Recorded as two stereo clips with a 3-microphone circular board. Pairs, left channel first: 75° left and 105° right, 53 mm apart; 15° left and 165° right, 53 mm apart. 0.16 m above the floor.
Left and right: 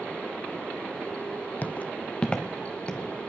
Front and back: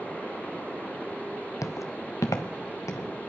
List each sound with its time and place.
1.6 s footsteps: 20° left, 0.5 m; by 3.1 s 5° left, 2.5 m